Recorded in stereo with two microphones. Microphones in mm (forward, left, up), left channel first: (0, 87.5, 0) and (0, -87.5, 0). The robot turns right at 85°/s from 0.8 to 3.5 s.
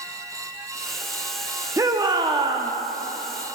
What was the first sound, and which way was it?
A shout, 20° right (ahead or behind).